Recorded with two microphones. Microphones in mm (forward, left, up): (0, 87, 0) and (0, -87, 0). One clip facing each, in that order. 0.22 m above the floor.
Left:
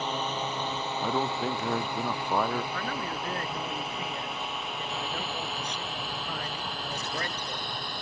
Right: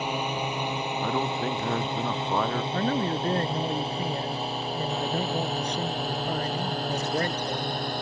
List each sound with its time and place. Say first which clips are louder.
0.0 s a drone: right 2 dB; 10° right (ahead or behind); by 8.0 s 45° right (ahead or behind)
1.0 s a man speaking: even; 5° left (ahead or behind)
2.7 s a man speaking: right 8 dB; 35° right (ahead or behind)